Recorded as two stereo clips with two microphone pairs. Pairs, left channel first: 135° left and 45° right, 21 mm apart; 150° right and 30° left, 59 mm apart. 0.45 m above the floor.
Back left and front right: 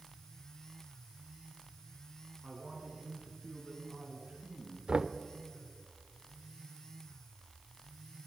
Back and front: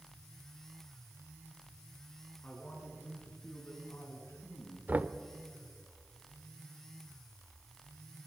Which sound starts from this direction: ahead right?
Knocking, at 4.9 s.